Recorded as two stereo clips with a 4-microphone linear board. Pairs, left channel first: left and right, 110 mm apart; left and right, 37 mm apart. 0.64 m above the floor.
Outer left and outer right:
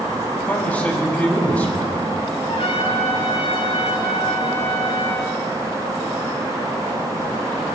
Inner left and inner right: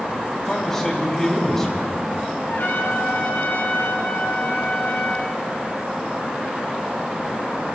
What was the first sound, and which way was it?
A man speaking, 15° left (ahead or behind).